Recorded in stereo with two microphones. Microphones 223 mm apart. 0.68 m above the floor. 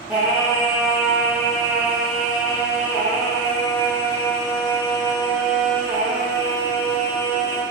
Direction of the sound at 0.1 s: 5° right (ahead or behind).